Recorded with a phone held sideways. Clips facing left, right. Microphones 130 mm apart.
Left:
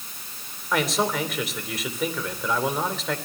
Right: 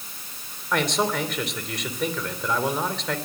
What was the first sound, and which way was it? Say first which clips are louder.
A man speaking: even; 5° left (ahead or behind).